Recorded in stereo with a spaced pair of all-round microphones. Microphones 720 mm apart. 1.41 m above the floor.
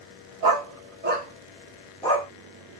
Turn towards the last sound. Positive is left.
turn(degrees=10)  # may be behind; listen again after turning